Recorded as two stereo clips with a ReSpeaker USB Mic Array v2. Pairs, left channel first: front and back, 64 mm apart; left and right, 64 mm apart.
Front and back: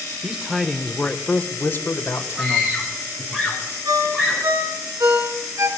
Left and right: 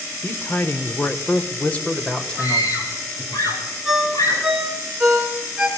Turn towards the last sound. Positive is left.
turn(degrees=-175)